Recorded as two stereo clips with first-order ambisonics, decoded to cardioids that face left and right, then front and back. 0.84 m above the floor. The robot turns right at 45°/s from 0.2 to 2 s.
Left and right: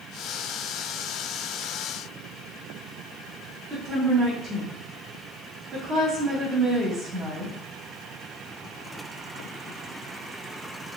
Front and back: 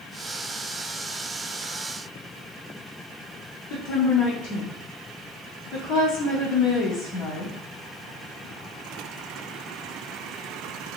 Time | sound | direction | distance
3.7 | a woman speaking | 30° right | 1.4 m